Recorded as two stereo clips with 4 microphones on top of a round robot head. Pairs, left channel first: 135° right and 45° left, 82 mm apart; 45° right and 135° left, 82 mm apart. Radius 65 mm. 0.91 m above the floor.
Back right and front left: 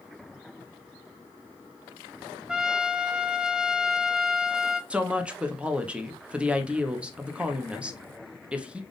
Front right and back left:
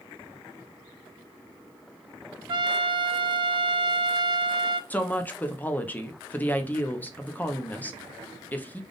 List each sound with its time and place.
2.5 s a trumpet: 125° left, 0.6 m
4.9 s a woman speaking: 10° right, 0.8 m